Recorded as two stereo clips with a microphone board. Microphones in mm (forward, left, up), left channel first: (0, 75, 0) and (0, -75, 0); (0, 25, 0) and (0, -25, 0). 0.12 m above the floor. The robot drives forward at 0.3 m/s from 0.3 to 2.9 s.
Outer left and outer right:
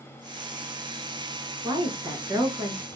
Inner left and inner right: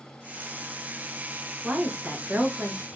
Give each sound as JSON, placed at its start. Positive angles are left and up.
{"t": 1.6, "sound": "a woman speaking", "side_deg": -25, "distance_m": 1.1}